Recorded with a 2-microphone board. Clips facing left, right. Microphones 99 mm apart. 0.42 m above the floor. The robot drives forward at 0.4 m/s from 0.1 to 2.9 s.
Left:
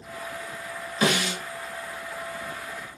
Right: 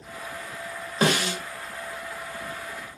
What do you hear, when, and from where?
1.0 s a snare drum: 40° right (ahead or behind), 1.1 m; by 1.4 s 45° right (ahead or behind), 1.1 m